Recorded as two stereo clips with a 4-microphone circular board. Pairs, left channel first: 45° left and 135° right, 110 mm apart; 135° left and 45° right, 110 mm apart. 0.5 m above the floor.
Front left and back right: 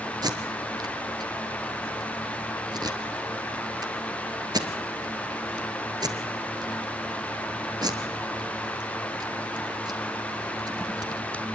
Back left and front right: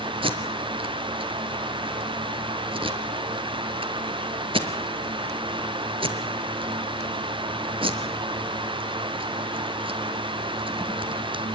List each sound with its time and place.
0.2 s tape being pulled: 85° right, 2.5 m